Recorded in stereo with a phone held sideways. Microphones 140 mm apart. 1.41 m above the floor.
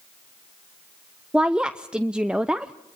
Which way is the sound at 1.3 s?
5° right (ahead or behind).